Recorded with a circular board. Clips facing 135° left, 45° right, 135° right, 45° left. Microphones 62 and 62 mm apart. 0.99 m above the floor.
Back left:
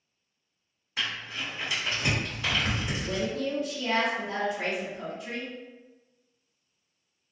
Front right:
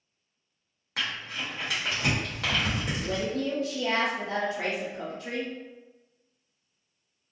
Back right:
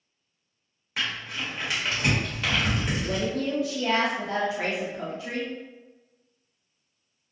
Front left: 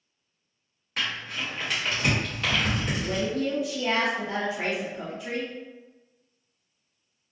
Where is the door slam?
No door slam in this recording.